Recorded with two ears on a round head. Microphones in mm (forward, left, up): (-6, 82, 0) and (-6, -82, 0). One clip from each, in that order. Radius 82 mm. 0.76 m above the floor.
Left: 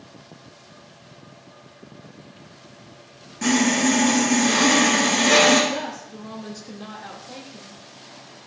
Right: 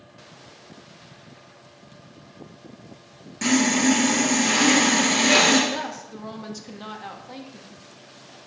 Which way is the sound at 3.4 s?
25° right (ahead or behind).